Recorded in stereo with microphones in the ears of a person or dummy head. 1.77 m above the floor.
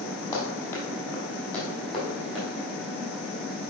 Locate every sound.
0.3 s running footsteps: 20° left (ahead or behind), 4 m; by 2.5 s centre (ahead or behind), 5 m